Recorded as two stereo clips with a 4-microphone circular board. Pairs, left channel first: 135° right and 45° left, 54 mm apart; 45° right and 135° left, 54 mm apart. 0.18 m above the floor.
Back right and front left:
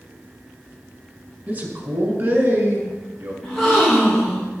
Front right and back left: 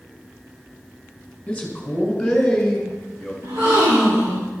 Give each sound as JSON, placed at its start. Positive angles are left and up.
{"t": 1.5, "sound": "a man speaking", "azimuth_deg": 15, "distance_m": 1.9}
{"t": 3.4, "sound": "a gasp", "azimuth_deg": 120, "distance_m": 3.0}